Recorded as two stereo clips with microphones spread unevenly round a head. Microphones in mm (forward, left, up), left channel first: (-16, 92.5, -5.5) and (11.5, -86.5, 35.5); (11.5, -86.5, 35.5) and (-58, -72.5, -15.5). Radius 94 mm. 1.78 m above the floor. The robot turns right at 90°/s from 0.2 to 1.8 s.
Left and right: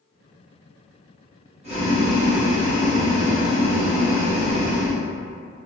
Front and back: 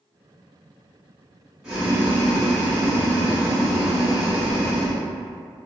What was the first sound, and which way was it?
Boiling, 65° right.